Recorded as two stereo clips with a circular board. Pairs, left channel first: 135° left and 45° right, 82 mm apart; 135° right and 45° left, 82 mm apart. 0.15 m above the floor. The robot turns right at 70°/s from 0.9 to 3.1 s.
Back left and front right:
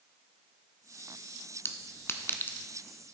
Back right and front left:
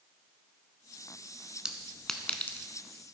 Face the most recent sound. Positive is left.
turn(degrees=-145)